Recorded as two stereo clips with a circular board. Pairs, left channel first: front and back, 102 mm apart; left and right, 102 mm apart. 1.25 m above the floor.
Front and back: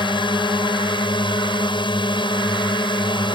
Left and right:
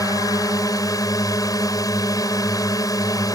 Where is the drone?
35° left.